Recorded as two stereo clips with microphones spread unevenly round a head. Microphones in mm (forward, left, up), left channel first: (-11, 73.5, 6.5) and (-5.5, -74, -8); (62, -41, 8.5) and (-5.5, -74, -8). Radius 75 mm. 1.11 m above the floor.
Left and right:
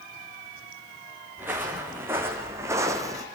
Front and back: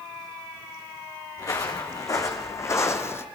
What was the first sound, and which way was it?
Footsteps, 10° right.